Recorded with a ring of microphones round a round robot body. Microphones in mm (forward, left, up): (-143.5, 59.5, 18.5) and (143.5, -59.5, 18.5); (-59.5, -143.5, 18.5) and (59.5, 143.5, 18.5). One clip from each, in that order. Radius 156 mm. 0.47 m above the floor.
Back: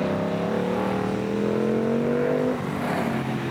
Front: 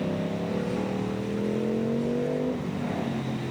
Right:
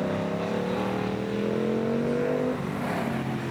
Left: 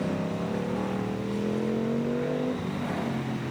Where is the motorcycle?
175° right.